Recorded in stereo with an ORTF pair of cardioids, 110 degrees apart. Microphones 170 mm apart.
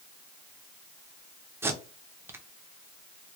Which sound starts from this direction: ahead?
Tape being pulled, at 1.6 s.